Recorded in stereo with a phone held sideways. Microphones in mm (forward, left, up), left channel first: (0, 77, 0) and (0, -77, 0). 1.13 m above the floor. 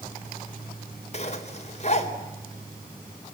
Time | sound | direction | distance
1.1 | a zipper | 45° left (ahead or behind) | 3.5 m